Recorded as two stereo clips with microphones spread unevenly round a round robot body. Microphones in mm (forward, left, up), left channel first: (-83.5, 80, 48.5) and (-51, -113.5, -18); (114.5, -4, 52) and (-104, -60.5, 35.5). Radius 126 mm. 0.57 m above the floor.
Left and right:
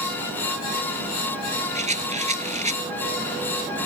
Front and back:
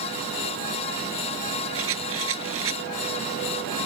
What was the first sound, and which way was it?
A rattle, 135° right.